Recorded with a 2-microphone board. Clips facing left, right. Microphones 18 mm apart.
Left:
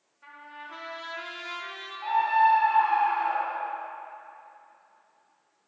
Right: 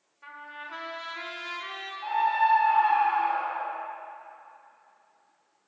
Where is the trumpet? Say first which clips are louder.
Right 2 dB; 15° right (ahead or behind), 0.6 m.